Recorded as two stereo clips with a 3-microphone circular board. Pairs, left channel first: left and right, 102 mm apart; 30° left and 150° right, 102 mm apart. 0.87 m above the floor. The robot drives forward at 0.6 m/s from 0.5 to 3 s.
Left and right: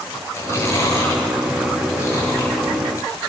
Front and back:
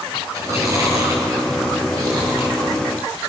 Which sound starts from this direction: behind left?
Chewing, at 0.3 s.